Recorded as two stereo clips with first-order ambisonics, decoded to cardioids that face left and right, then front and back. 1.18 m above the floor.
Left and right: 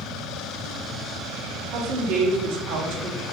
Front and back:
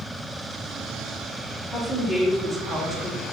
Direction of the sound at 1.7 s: 85° right.